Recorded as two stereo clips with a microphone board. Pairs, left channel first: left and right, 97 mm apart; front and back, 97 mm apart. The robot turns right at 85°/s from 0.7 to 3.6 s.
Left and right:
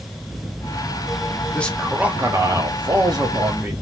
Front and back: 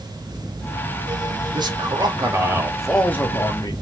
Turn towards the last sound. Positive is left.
turn(degrees=-25)